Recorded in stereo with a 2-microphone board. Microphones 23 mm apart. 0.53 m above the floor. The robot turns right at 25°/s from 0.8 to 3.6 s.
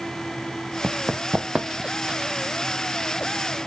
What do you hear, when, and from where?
0.8 s running footsteps: 65° right (ahead or behind), 1.4 m; by 2.3 s 35° right (ahead or behind), 1.5 m